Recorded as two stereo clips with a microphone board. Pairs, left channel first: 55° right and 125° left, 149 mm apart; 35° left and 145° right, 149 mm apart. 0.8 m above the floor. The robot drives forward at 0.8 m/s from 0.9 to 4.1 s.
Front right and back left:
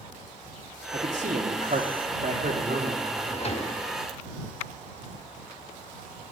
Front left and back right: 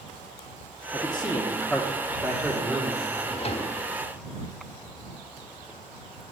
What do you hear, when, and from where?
0.9 s a man speaking: 90° left, 1.2 m; by 3.0 s 145° left, 2.0 m
3.1 s a drawer: 10° right, 1.2 m; by 3.8 s 15° right, 0.7 m